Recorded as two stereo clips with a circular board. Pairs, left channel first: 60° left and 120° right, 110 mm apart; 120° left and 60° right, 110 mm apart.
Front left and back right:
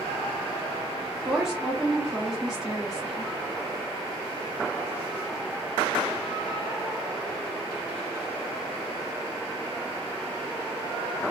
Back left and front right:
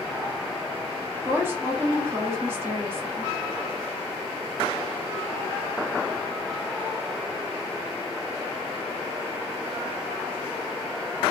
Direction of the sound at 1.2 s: 45° right.